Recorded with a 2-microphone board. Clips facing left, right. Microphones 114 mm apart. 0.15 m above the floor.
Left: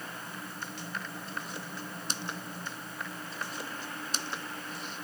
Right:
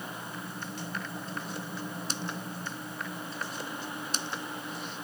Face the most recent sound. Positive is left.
No sound to turn to.